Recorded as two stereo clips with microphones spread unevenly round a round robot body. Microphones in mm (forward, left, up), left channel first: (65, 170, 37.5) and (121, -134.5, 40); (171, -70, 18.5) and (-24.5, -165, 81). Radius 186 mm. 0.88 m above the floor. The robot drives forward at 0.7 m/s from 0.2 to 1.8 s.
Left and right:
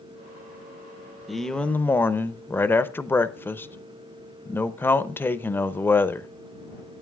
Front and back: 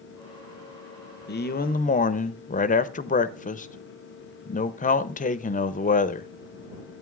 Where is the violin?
I don't hear a violin.